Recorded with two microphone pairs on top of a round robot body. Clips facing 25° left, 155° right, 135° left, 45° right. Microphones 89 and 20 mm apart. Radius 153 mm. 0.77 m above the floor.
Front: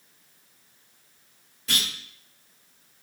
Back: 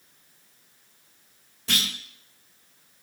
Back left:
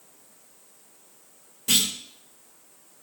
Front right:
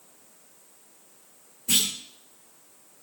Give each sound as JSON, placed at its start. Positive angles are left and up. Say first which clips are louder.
{"t": 1.7, "sound": "a clunk", "louder": "back 1 dB, back left 2 dB", "azimuth_deg": 140, "distance_m": 2.5}